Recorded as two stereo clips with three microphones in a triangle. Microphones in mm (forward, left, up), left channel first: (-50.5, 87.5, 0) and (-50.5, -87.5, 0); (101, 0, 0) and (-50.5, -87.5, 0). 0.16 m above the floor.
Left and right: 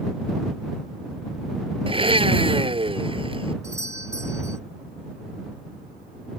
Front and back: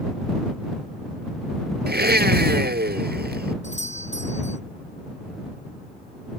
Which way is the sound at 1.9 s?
145° right.